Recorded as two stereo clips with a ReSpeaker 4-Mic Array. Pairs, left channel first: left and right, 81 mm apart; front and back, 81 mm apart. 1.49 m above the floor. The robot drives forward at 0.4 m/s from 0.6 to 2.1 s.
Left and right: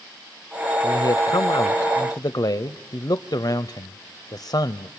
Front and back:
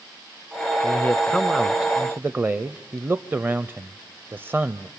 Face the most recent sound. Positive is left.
turn(degrees=120)